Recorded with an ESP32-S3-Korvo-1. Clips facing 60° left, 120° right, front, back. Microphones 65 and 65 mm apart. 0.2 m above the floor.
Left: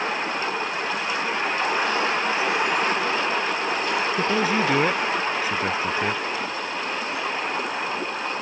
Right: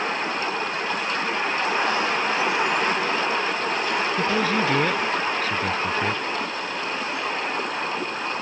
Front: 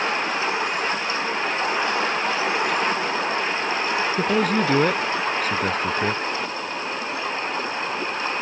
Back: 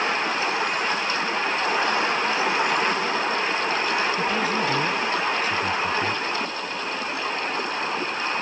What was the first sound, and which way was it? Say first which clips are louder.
A man speaking: even, front 3 dB; 15° right.